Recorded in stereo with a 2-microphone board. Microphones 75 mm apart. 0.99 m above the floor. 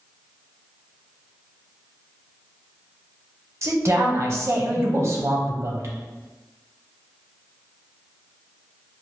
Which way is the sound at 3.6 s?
40° right (ahead or behind).